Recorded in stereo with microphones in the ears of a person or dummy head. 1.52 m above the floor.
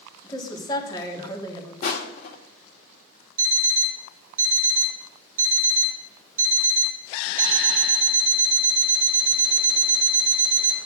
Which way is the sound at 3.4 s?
40° right (ahead or behind).